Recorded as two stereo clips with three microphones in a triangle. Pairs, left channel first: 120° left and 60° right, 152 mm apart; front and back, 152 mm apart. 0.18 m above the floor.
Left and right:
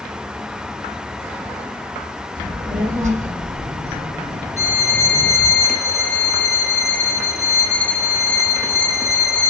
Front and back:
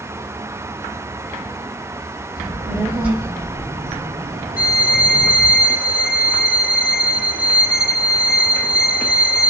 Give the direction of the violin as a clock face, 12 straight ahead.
12 o'clock.